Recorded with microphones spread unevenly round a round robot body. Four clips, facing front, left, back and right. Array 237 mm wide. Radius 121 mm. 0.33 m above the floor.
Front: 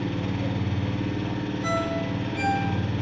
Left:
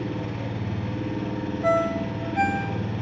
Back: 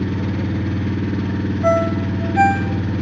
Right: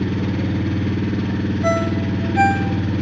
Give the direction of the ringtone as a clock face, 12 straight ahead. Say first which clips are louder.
Right 1 dB, back 11 dB; 5 o'clock.